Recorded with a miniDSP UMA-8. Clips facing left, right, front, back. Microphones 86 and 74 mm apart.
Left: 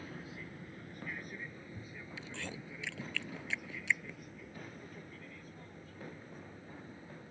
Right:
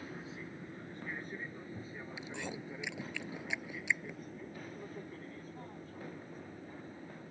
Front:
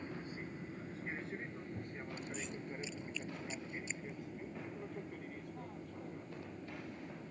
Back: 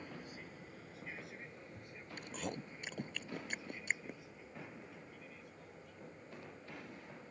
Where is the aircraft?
35° right; by 7.3 s 40° right.